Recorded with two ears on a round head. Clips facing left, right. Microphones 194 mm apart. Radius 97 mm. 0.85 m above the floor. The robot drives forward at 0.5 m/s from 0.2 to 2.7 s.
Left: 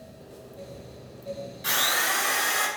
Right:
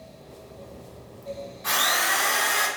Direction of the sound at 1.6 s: 40° left (ahead or behind).